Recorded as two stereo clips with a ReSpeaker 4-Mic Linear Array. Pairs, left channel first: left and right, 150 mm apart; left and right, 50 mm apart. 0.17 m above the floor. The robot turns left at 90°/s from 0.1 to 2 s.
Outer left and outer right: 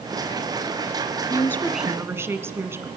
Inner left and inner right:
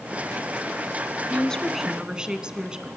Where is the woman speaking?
40° left, 1.5 m; by 2.9 s 25° right, 1.5 m.